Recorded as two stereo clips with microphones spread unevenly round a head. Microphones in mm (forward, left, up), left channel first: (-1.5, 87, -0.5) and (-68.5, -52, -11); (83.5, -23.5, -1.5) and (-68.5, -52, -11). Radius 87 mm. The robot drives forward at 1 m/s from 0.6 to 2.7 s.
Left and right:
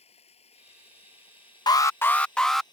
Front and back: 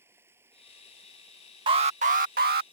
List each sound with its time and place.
0.0 s running water: 115° left; by 2.7 s 125° left
1.7 s an alarm: 130° left; by 2.6 s 155° left